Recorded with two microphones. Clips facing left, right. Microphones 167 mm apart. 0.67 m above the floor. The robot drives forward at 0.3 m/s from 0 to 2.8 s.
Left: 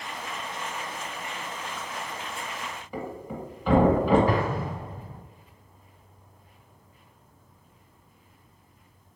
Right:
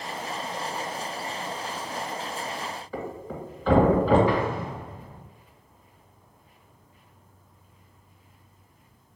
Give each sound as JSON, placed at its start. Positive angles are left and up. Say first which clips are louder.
{"t": 2.9, "sound": "a thud", "louder": "left 1 dB", "side_deg": 10, "distance_m": 1.5}
{"t": 4.3, "sound": "an explosion", "louder": "even", "side_deg": 45, "distance_m": 0.9}